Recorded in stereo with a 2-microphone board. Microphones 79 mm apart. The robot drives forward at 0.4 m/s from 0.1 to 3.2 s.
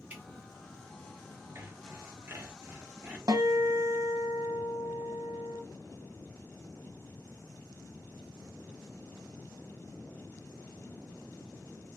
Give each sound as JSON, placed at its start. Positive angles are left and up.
{"t": 0.1, "sound": "dripping", "side_deg": -20, "distance_m": 1.5}
{"t": 1.6, "sound": "sawing", "side_deg": -35, "distance_m": 1.0}
{"t": 3.3, "sound": "a guitar", "side_deg": -50, "distance_m": 1.2}